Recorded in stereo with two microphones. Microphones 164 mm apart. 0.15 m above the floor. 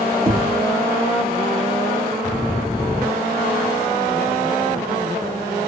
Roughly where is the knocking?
Right.